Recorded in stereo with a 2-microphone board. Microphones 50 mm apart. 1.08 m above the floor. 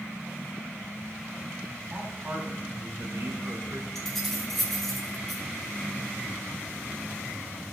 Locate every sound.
1.9 s a man speaking: 40° right (ahead or behind), 2.5 m; by 3.9 s 85° right, 2.0 m
4.0 s keys jangling: 5° left (ahead or behind), 2.5 m